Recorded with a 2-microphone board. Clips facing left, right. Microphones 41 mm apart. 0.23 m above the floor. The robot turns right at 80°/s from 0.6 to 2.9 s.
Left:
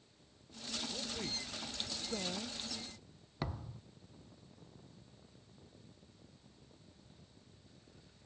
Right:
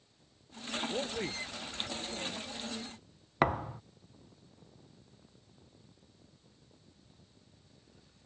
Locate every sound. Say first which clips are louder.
0.9 s a man speaking: right 6 dB; 60° right (ahead or behind); by 2.6 s 60° left (ahead or behind)
3.4 s a thud: right 14 dB; 55° right (ahead or behind)